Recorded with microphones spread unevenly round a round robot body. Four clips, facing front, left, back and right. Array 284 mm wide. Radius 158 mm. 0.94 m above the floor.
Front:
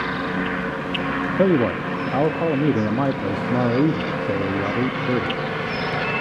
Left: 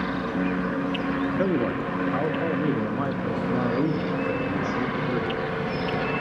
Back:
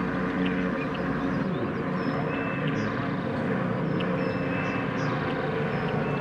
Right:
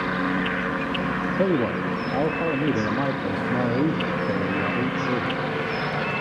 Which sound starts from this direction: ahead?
A man speaking, at 1.4 s.